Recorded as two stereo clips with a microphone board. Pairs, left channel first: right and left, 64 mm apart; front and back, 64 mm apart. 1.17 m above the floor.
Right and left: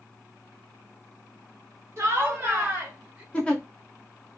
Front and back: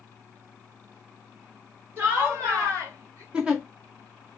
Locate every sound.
2.0 s laughter: 130° left, 1.1 m; by 3.2 s 165° left, 1.7 m
3.3 s a giggle: 135° right, 0.6 m